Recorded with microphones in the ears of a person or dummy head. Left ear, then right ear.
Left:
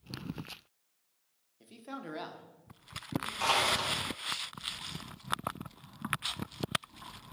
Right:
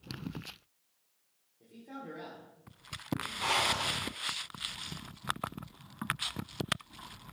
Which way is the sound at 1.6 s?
55° left (ahead or behind).